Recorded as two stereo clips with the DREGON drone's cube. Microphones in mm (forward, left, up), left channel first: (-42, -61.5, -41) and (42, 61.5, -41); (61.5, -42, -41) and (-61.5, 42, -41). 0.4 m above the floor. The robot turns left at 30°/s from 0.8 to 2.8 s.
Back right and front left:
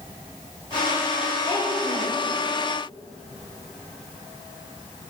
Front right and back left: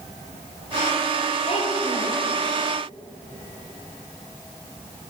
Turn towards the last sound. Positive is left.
turn(degrees=-105)